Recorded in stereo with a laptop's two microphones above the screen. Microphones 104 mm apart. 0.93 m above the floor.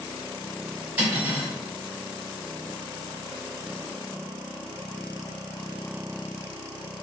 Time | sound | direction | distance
1.0 | cutlery clinking | 15° right (ahead or behind) | 1.2 m